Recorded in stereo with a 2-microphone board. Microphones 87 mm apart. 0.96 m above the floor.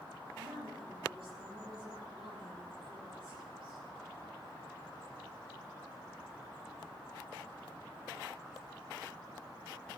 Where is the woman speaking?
85° right, 8 m.